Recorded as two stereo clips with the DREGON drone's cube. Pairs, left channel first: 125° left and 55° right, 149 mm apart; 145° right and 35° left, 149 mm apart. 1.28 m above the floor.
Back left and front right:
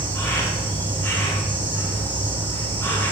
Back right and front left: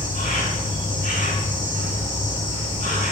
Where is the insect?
160° right, 3.5 m.